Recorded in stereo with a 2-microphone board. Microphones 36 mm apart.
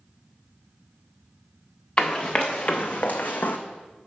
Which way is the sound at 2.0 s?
25° left (ahead or behind).